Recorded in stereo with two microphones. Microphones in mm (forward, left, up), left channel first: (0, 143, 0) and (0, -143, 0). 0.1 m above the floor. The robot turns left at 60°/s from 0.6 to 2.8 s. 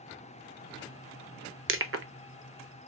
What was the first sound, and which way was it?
Crushing, 45° right (ahead or behind).